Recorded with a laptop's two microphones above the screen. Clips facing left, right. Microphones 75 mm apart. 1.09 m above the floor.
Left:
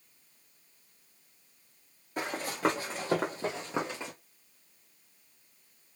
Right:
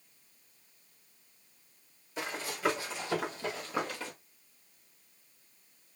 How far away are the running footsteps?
About 1.9 m.